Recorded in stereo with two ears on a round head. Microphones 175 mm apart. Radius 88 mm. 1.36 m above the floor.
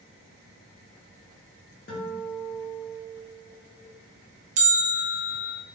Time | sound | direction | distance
1.9 | a guitar | 50° left (ahead or behind) | 1.1 m
4.6 | a bell | 35° right (ahead or behind) | 0.7 m